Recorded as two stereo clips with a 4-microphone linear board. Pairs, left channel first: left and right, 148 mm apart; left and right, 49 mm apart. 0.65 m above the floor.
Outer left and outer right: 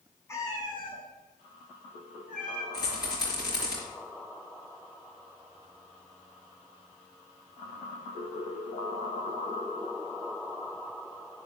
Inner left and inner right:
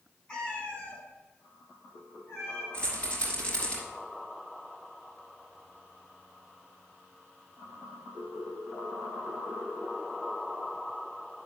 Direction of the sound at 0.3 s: 20° left (ahead or behind).